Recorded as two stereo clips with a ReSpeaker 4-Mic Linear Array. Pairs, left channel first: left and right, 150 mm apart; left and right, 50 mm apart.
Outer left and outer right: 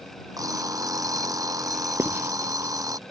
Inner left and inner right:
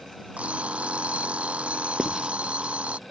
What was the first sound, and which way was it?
An alarm clock, 25° right (ahead or behind).